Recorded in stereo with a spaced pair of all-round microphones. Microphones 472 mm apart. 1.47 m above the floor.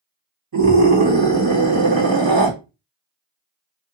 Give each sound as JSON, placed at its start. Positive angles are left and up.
{"t": 0.5, "sound": "a scream", "side_deg": -50, "distance_m": 2.0}